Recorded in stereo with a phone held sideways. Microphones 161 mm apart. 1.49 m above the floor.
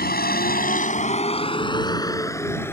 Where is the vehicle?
85° left; by 2.7 s 15° left (ahead or behind).